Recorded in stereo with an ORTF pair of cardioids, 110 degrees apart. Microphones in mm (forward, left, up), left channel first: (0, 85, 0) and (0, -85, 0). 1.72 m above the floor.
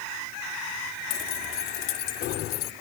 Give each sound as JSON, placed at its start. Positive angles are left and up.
{"t": 1.1, "sound": "keys jangling", "azimuth_deg": 60}